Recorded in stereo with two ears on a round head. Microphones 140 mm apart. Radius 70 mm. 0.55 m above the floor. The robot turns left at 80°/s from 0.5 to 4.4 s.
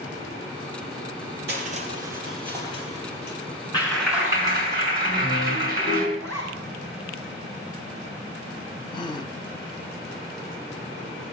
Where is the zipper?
20° left (ahead or behind), 6 m.